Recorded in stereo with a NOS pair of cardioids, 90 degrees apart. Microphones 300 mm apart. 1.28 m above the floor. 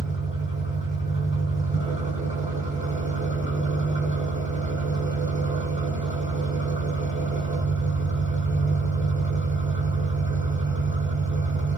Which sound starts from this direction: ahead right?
An engine running, at 0.0 s.